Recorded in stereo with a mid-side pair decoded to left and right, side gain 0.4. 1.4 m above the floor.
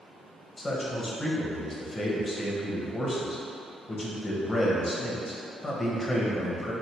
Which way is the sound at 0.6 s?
30° left.